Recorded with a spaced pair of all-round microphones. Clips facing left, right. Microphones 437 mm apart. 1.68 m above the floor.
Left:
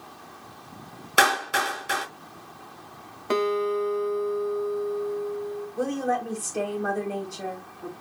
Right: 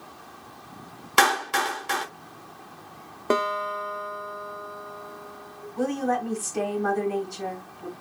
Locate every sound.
1.2 s a clap: 15° right (ahead or behind), 0.7 m
3.3 s a guitar: 65° right (ahead or behind), 0.5 m
5.8 s a woman speaking: 15° right (ahead or behind), 1.3 m